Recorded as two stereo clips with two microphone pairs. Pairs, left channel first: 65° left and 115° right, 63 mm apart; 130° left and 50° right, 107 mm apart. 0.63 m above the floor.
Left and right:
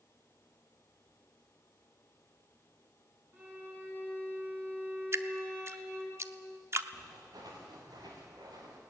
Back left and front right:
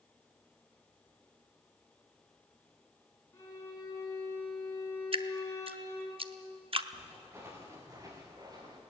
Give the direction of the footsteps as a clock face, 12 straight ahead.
4 o'clock.